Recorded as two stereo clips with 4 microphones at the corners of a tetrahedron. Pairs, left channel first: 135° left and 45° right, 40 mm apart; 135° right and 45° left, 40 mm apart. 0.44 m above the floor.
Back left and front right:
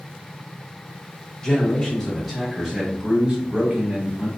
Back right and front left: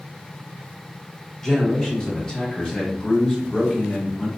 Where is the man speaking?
170° left, 1.1 m; by 4.3 s 65° right, 1.5 m.